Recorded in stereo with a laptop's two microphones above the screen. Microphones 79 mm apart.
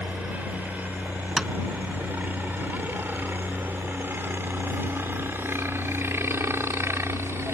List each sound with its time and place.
0.0 s a helicopter: 20° right (ahead or behind); by 7.5 s 35° right (ahead or behind)
1.4 s tapping: 5° right (ahead or behind)